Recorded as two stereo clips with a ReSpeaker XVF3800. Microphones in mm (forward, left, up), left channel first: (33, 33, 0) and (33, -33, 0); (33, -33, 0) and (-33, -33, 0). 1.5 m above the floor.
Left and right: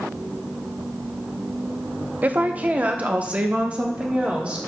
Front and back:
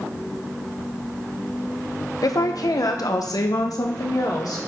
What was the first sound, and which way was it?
A woman speaking, 25° right.